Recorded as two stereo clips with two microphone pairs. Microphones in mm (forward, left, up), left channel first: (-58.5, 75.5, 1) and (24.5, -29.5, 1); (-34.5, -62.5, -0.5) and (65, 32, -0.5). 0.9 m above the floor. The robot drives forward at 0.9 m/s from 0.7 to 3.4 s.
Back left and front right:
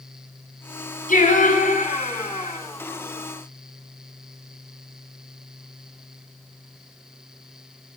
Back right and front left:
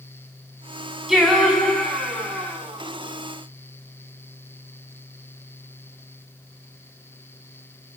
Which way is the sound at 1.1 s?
130° left.